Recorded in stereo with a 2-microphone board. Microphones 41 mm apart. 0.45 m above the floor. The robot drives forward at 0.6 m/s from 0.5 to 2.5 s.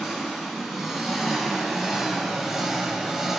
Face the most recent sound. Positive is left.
turn(degrees=-10)  # may be behind; listen again after turning